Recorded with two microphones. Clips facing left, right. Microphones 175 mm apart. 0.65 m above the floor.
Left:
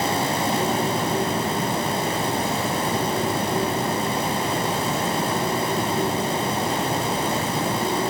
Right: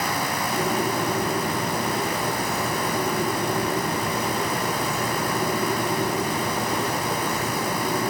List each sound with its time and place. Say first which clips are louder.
0.5 s a bird: right 1 dB; 60° left (ahead or behind), 3.5 m